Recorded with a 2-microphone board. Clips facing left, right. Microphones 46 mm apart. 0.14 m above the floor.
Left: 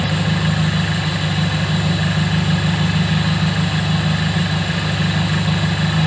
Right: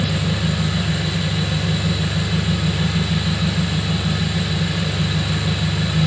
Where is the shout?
No shout in this recording.